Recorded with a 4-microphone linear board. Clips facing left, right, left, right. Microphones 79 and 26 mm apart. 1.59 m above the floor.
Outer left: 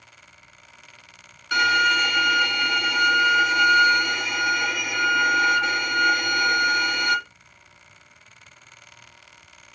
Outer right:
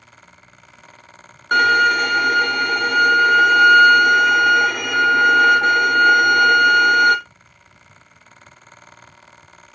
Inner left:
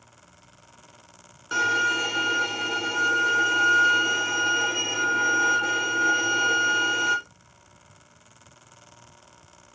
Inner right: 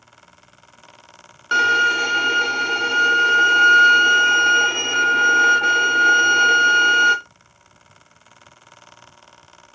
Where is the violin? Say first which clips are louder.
Outer right 6 dB, inner right 7 dB; 45° right (ahead or behind), 0.7 m.